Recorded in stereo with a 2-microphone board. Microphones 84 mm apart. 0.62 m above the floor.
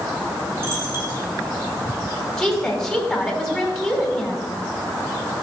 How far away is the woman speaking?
About 2 m.